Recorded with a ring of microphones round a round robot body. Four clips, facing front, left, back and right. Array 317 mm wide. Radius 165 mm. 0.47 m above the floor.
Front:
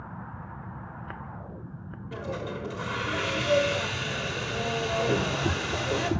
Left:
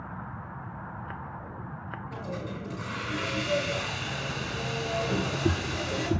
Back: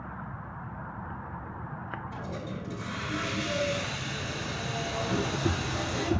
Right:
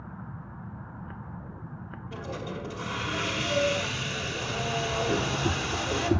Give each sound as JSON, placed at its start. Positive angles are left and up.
{"t": 2.1, "sound": "a hiss", "azimuth_deg": -10, "distance_m": 1.8}